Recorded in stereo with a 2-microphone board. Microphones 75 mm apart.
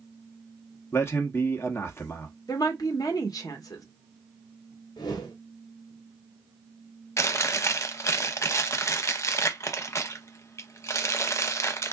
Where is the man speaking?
35° left (ahead or behind), 0.9 m.